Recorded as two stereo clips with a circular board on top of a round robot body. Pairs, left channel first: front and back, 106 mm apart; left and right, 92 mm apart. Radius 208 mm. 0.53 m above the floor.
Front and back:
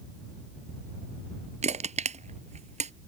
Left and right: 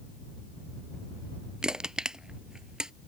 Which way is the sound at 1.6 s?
175° right.